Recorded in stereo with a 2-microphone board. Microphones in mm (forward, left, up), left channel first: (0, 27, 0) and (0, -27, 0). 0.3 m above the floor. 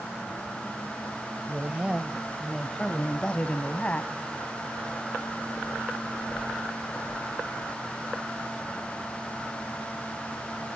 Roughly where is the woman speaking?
Right.